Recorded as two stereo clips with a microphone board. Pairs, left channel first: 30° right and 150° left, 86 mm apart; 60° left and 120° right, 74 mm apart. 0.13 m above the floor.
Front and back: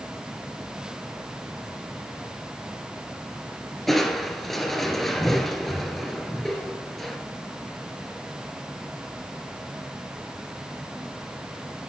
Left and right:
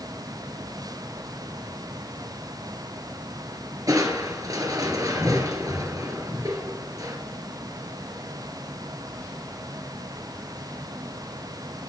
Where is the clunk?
No clunk in this recording.